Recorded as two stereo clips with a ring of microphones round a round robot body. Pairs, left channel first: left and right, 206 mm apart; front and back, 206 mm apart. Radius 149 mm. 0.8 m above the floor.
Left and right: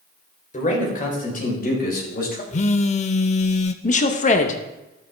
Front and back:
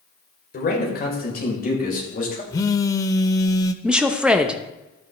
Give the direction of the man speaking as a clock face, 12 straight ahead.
11 o'clock.